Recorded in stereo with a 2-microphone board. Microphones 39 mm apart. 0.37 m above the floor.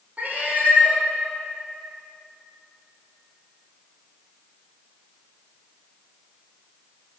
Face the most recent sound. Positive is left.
turn(degrees=-40)  # may be behind; listen again after turning